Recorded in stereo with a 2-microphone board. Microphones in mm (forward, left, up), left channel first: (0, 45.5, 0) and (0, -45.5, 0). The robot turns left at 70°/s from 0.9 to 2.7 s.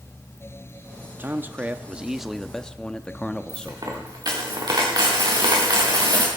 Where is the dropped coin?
50° right (ahead or behind), 3.5 m.